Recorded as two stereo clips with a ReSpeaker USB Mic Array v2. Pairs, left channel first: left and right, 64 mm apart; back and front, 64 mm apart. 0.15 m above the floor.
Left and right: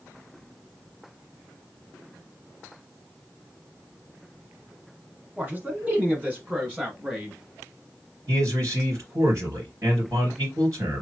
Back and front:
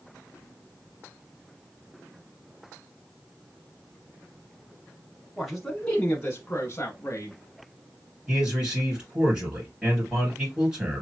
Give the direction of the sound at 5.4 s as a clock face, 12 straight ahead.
3 o'clock.